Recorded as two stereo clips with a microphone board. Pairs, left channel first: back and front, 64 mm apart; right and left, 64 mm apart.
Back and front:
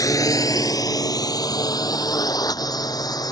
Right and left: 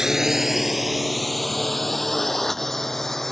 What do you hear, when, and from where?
0.0 s a drone: 170° left; by 3.3 s 175° right